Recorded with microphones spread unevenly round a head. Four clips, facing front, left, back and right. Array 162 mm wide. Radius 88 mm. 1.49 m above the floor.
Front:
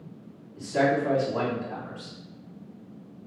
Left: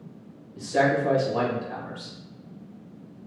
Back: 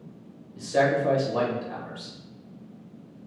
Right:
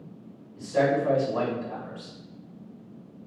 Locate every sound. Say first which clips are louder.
0.6 s a man speaking: left 1 dB, back 1 dB; 150° left, 1.9 m